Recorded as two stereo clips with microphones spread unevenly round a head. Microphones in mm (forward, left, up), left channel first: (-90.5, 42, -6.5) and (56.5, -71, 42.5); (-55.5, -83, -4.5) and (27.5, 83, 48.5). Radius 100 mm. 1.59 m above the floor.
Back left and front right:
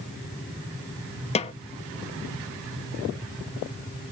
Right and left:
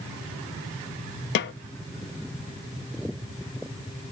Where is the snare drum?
155° right, 0.5 m.